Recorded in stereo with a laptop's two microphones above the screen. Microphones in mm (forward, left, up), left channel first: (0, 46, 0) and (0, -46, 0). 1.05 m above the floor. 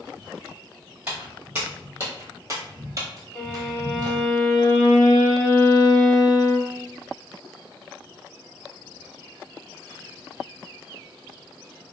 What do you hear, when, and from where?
1.1 s footsteps: 15° right (ahead or behind), 1.9 m; by 4.3 s 45° right (ahead or behind), 1.5 m
3.4 s a violin: 45° left (ahead or behind), 1.0 m